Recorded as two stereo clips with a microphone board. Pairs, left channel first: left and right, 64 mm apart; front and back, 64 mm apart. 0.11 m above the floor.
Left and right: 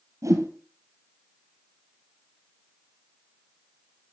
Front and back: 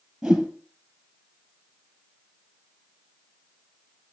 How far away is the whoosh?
About 2 m.